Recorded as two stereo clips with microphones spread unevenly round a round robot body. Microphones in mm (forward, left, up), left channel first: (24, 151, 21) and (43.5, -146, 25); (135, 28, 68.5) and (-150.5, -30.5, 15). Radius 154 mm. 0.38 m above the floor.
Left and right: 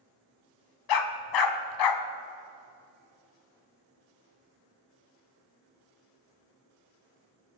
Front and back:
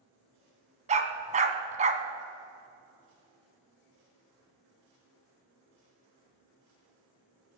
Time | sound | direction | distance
0.9 | a dog barking | 120° left | 0.8 m